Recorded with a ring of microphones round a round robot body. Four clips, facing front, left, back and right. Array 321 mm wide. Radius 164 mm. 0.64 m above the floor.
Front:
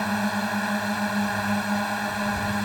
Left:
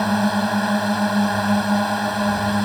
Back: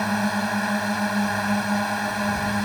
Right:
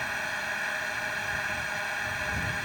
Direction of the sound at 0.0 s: 90° left.